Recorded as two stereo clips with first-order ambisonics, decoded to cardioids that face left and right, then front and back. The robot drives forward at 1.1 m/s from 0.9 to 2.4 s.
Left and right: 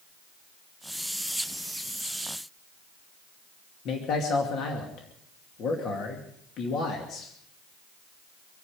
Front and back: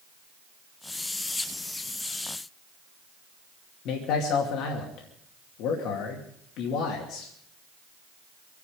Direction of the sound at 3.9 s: 40° left.